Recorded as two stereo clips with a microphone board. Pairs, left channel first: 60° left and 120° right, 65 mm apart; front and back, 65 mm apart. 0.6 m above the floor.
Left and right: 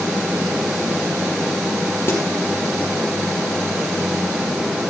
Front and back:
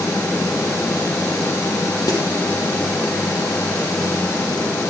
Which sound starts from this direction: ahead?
A snare drum, at 2.1 s.